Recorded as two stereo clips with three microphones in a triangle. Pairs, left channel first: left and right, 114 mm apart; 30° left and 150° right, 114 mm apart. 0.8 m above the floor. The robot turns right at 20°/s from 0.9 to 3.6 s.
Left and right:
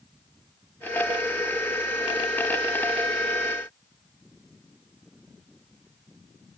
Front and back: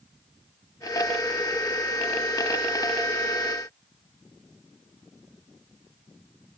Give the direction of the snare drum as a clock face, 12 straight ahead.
No snare drum in this recording.